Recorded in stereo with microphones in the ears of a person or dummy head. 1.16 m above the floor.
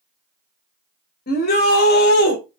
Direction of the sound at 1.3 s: 50° left (ahead or behind).